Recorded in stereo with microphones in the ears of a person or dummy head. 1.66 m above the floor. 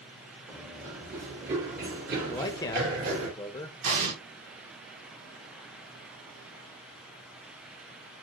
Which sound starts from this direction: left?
A man speaking, at 2.3 s.